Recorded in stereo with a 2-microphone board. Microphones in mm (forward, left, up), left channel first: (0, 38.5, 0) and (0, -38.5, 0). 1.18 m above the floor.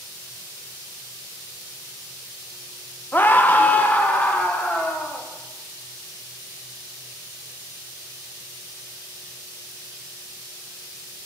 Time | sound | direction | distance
3.1 | a scream | 25° left (ahead or behind) | 0.6 m